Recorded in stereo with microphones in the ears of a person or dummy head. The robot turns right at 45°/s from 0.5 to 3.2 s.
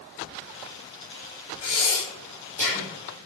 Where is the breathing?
40° left (ahead or behind), 1.0 m; by 2.9 s 5° left (ahead or behind), 1.0 m.